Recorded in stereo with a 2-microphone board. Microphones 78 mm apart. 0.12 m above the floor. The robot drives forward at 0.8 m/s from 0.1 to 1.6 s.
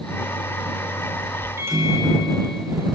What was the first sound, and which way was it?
A microwave, 35° right (ahead or behind).